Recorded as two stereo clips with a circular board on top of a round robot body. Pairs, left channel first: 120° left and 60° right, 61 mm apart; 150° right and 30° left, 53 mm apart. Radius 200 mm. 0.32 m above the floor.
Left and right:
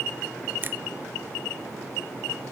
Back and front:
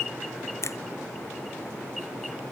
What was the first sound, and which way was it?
A finger snap, 115° right.